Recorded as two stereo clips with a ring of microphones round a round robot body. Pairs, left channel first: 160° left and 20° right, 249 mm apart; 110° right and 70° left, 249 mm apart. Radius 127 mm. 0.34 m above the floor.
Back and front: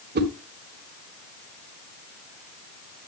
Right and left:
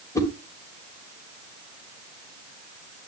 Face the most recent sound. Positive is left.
turn(degrees=-40)